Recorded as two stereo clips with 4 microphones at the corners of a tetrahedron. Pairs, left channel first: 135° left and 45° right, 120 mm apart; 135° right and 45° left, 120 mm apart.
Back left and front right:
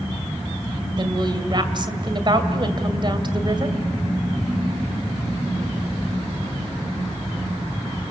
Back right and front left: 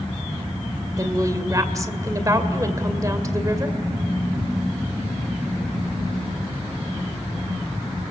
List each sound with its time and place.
1.0 s a woman speaking: 10° right, 2 m